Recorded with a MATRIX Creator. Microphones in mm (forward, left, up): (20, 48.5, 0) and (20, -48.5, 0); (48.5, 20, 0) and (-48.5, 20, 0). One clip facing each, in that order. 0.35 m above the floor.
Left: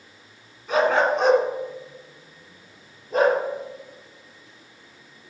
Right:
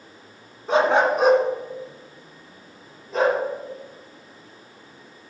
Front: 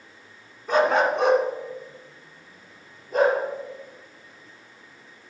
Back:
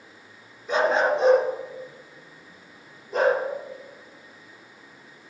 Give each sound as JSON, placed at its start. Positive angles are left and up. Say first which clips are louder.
{"t": 0.7, "sound": "a dog barking", "louder": "right 1 dB, front 1 dB", "azimuth_deg": -35, "distance_m": 1.8}